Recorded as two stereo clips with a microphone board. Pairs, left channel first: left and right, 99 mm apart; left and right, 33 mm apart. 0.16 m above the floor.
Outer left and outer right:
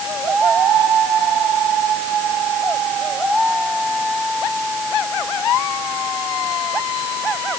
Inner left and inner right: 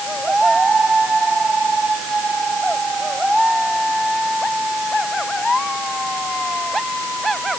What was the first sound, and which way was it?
Only background noise.